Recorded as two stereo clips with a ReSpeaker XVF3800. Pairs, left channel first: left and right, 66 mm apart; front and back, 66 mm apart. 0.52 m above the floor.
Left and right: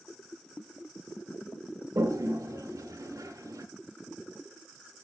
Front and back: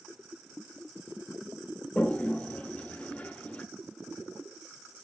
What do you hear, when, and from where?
1.9 s a toilet flushing: 70° right, 0.9 m